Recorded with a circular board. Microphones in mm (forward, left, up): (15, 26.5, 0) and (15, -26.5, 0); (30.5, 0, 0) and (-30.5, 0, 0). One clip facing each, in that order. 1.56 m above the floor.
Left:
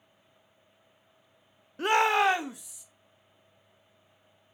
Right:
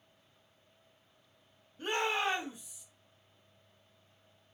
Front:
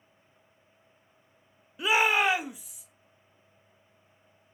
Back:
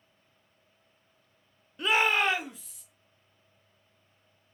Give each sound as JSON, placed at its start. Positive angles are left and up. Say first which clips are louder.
{"t": 1.8, "sound": "a shout", "louder": "left 9 dB, front 1 dB", "azimuth_deg": 85, "distance_m": 0.5}